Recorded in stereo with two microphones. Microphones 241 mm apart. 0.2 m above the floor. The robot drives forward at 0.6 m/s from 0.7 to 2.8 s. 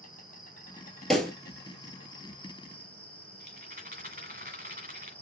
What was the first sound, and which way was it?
An insect, 35° left (ahead or behind).